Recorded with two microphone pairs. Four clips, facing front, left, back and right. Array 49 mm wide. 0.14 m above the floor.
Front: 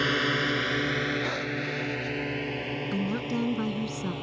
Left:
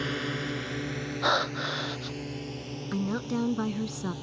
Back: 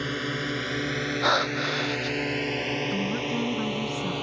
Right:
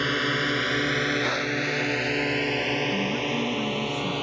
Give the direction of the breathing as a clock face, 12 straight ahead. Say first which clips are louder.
Right 1 dB, back 6 dB; 7 o'clock.